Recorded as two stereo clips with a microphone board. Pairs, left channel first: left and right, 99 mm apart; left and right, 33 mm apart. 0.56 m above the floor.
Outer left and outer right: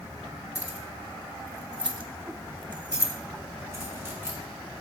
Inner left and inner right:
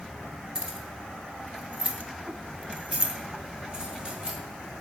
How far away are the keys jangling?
About 1.7 m.